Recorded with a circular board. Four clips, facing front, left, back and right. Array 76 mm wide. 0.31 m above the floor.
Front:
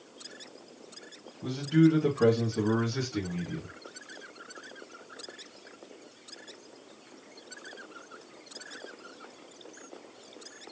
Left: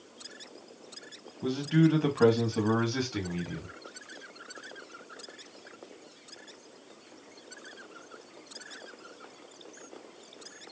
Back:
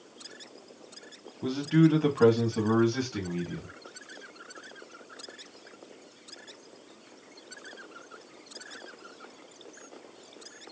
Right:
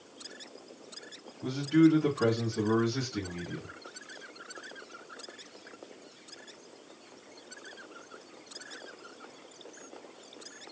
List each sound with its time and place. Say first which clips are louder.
1.4 s a man speaking: right 2 dB, even; 145° left, 2.5 m; by 3.7 s 100° left, 2 m